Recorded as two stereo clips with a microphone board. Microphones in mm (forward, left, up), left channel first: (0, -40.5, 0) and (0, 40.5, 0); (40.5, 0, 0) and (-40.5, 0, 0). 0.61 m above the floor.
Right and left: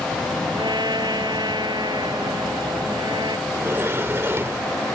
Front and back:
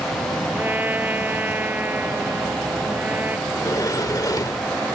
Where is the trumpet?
115° left.